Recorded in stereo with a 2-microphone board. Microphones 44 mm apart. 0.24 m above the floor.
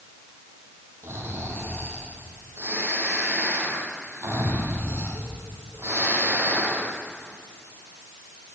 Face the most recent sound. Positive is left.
turn(degrees=-65)  # may be behind; listen again after turning